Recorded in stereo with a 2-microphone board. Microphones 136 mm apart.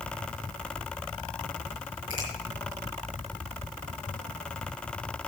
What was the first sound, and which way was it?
A finger snap, 75° left (ahead or behind).